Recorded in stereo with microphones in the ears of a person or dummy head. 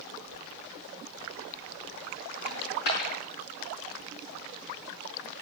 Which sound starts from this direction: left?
A dropped coin, at 2.5 s.